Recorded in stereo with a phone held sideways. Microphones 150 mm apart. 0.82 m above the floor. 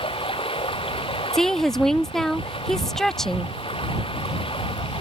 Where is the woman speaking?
5° left (ahead or behind).